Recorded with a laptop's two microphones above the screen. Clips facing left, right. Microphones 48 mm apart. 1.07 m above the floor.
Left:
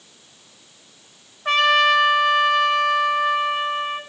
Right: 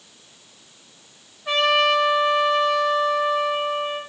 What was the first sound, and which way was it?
A trumpet, 60° left (ahead or behind).